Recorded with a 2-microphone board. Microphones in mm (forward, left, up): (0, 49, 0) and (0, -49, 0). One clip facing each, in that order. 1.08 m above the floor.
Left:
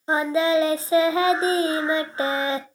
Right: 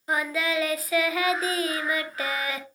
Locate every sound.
0.1 s singing: 30° left (ahead or behind), 0.8 m